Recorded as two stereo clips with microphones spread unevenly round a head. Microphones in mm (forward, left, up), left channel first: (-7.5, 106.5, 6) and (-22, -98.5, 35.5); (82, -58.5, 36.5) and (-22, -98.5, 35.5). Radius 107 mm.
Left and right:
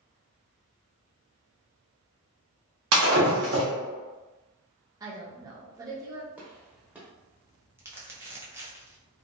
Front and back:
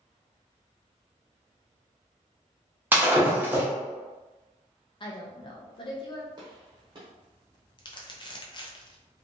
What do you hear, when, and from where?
2.9 s breaking glass: 85° right, 0.8 m
5.0 s a woman speaking: 20° right, 0.6 m
6.4 s a gunshot: 160° right, 0.7 m
7.8 s crumpling: 10° right, 0.7 m